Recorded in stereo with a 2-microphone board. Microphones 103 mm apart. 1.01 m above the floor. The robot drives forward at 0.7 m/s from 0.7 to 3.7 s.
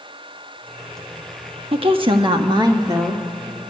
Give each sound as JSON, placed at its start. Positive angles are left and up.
{"t": 1.7, "sound": "a woman speaking", "side_deg": -65, "distance_m": 1.2}